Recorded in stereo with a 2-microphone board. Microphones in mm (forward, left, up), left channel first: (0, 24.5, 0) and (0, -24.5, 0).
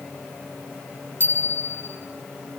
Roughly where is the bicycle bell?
Left.